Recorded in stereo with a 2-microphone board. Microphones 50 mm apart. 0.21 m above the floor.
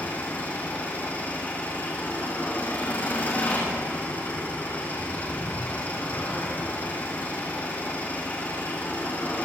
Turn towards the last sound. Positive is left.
turn(degrees=30)  # may be behind; listen again after turning